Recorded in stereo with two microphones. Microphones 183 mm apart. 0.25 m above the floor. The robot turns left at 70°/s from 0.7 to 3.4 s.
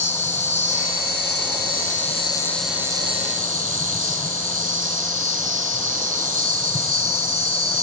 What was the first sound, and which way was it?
An insect, 135° left.